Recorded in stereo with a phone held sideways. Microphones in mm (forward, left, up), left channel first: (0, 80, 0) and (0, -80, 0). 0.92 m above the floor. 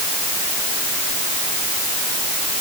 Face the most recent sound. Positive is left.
No sound to turn to.